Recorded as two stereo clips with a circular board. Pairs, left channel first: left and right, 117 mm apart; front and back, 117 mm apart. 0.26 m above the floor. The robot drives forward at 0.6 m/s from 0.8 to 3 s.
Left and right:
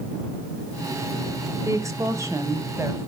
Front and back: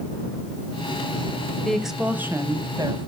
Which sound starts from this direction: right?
A woman speaking, at 1.6 s.